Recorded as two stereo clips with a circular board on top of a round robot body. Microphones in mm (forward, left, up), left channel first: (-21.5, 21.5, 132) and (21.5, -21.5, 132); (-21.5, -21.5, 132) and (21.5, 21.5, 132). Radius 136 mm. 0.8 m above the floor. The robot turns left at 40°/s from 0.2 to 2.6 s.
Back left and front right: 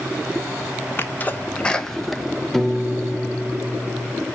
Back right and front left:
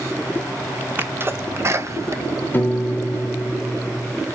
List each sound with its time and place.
1.0 s a sneeze: 90° left, 1.3 m; by 3.5 s 25° left, 1.3 m
2.5 s a piano: 145° right, 0.8 m